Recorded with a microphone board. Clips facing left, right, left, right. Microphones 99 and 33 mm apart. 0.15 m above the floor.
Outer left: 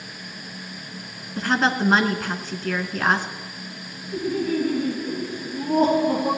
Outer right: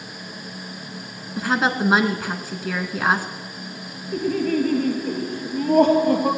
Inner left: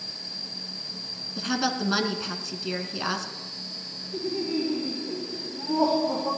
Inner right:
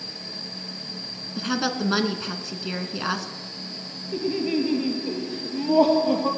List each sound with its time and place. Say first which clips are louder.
1.4 s a woman speaking: even, inner right 2 dB; 5° right (ahead or behind), 1.5 m
4.1 s laughter: outer right 2 dB, inner right 4 dB; 65° right (ahead or behind), 3.5 m